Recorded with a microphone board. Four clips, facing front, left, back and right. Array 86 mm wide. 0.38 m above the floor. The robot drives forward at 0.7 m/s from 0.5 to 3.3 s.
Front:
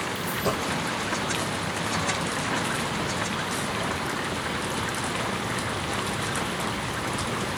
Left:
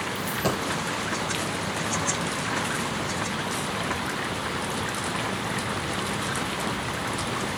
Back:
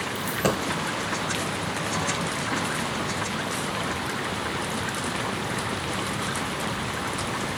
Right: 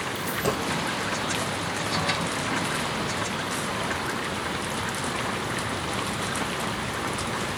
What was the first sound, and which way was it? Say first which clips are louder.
A dropped coin: even, back 4 dB; 175° left.